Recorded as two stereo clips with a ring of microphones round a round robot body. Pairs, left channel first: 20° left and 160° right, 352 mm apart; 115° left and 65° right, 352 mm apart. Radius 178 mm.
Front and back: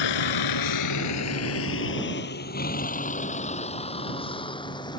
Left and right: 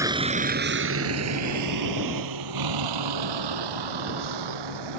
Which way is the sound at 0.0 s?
15° left.